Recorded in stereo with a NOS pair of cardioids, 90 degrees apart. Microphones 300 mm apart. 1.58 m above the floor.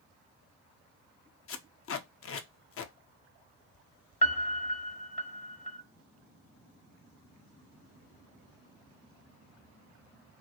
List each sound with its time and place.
1.5 s tape being pulled: 50° left, 0.6 m
4.2 s a piano: 25° left, 0.7 m